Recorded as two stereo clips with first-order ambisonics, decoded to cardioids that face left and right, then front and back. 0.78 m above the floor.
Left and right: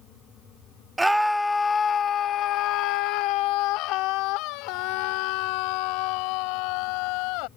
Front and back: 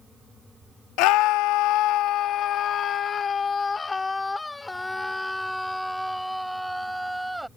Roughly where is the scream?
Ahead.